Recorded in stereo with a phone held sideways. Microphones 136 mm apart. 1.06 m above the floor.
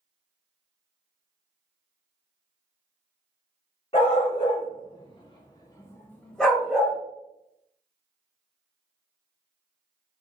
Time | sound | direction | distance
3.9 | a dog barking | 45° left (ahead or behind) | 1.3 m